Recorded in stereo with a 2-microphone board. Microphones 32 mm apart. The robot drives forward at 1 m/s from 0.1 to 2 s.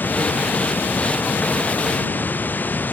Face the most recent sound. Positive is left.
turn(degrees=65)  # may be behind; listen again after turning